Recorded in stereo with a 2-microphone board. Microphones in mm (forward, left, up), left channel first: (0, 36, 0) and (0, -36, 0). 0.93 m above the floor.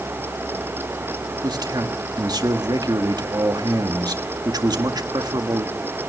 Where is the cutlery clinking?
I don't hear cutlery clinking.